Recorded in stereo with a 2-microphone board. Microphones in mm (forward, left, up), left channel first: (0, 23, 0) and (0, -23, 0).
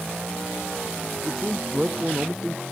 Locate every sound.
1.2 s a man speaking: 10° right (ahead or behind)